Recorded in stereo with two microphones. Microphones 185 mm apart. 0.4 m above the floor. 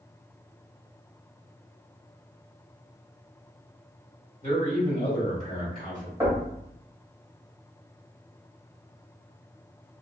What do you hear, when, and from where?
4.4 s a man speaking: 45° left (ahead or behind), 1.6 m
6.2 s knocking: 10° right (ahead or behind), 1.7 m